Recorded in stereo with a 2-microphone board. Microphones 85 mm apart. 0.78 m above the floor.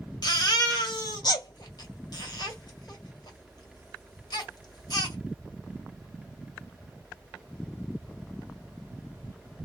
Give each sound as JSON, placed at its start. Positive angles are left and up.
{"t": 0.2, "sound": "a baby crying", "side_deg": 55, "distance_m": 1.6}